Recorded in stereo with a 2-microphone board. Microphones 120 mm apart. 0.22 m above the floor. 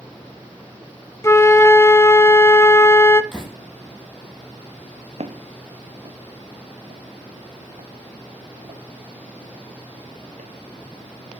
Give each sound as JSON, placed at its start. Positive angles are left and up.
{"t": 1.2, "sound": "a flute", "side_deg": 20, "distance_m": 0.9}
{"t": 3.3, "sound": "a door slam", "side_deg": 0, "distance_m": 6.0}
{"t": 5.2, "sound": "footsteps", "side_deg": -65, "distance_m": 1.0}